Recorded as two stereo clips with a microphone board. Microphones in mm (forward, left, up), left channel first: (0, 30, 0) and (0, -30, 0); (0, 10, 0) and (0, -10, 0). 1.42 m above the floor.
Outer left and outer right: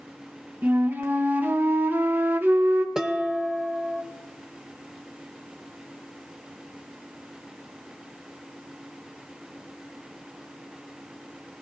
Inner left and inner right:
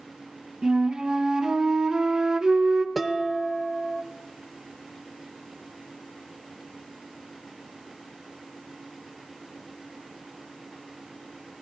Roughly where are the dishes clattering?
Centre.